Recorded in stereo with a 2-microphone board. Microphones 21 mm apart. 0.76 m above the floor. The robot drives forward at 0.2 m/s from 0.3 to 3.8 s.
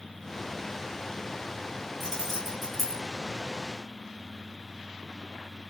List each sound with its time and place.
2.0 s keys jangling: 5° left (ahead or behind), 2.5 m